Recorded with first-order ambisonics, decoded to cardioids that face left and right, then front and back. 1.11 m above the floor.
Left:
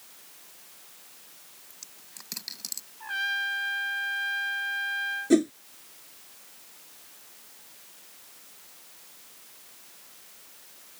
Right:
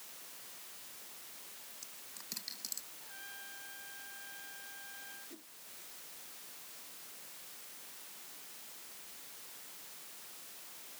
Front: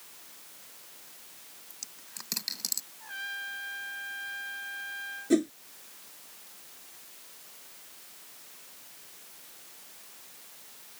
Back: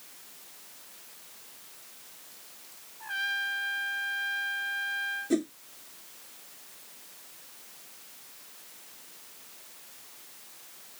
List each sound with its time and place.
1.7 s a dropped coin: 20° left
3.0 s a trumpet: 110° left
5.3 s a whoosh: 80° left